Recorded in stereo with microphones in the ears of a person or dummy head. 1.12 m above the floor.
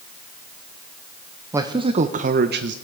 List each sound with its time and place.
1.5 s a man speaking: 15° right (ahead or behind), 0.8 m; by 2.8 s 60° right (ahead or behind), 0.9 m